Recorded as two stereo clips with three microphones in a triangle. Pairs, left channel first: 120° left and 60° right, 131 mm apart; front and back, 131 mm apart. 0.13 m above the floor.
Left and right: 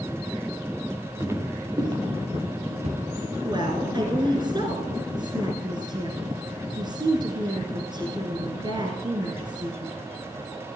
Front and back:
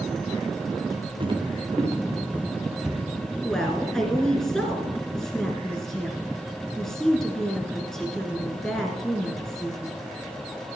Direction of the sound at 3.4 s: 85° right.